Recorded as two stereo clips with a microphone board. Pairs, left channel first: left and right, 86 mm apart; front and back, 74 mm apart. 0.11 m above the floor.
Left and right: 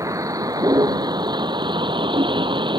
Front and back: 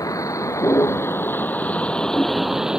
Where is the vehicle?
40° right; by 2.8 s 105° right.